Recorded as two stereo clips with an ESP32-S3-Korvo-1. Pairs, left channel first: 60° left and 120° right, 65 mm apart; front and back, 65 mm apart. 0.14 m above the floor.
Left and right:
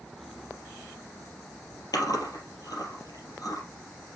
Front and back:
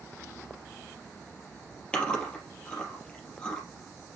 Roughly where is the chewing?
Left.